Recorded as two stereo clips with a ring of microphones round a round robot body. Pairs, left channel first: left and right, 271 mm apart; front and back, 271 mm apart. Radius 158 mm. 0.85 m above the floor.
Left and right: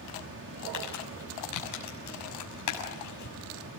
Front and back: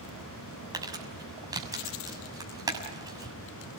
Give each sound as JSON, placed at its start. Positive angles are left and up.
{"t": 0.7, "sound": "crumpling", "azimuth_deg": 105, "distance_m": 6.5}